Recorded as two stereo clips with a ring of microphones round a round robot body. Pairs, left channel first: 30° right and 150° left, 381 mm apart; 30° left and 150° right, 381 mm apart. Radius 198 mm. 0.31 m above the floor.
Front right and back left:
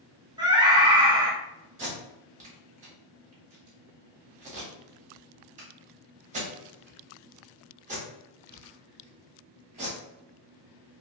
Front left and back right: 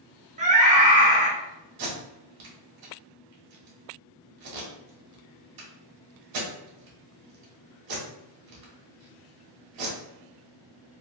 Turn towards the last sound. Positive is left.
turn(degrees=-140)